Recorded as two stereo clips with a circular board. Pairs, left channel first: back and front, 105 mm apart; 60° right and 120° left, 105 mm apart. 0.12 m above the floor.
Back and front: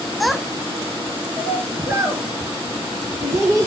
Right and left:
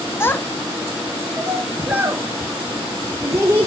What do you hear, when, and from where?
0.2 s a child speaking: 95° right, 0.7 m; by 3.7 s 60° left, 1.6 m